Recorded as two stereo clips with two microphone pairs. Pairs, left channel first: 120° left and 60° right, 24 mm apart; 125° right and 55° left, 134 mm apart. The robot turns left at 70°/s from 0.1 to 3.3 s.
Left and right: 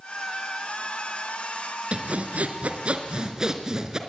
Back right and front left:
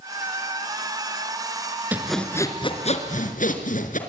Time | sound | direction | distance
1.9 | sawing | 25° right | 3.5 m